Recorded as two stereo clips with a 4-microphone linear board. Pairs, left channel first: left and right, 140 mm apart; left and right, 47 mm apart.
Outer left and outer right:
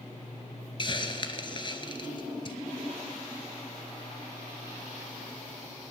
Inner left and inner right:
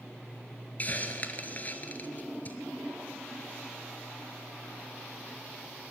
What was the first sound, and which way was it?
A hiss, 35° left (ahead or behind).